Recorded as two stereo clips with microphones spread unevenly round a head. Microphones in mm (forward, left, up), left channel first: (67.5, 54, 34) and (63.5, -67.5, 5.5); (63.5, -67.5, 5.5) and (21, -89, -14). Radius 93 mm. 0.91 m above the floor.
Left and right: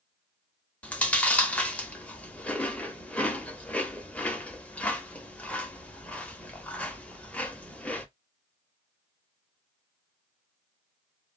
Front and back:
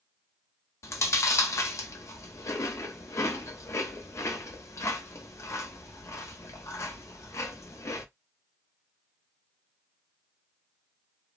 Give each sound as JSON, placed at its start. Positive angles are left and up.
{"t": 0.8, "sound": "chewing", "azimuth_deg": 10, "distance_m": 0.8}